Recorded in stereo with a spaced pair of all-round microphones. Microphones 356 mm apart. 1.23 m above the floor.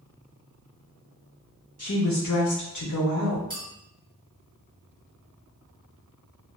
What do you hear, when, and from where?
1.8 s a woman speaking: 45° left (ahead or behind), 0.8 m
3.5 s a clink: 25° right (ahead or behind), 0.7 m